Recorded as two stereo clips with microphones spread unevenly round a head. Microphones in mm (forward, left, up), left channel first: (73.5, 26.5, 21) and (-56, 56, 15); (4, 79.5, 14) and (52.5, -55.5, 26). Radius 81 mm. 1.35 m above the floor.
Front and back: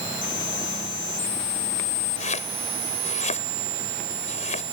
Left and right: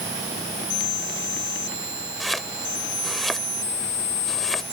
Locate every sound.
2.2 s chopping: 20° left